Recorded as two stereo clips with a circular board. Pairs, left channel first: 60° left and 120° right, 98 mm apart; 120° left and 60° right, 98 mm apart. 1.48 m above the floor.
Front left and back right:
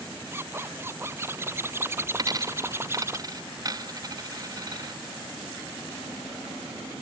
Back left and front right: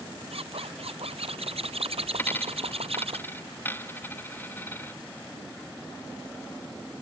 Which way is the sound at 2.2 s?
170° right.